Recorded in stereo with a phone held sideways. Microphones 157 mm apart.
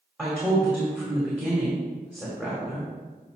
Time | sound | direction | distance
0.2 | a woman speaking | centre (ahead or behind) | 2.0 m